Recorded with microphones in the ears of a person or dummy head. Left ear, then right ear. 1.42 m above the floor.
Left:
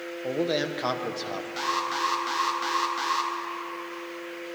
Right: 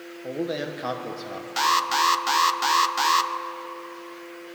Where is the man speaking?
20° left (ahead or behind), 1.1 m.